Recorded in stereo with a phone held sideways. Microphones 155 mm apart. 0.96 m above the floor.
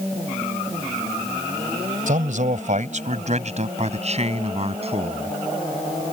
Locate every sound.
2.1 s a man speaking: 60° right (ahead or behind); by 5.4 s 40° right (ahead or behind)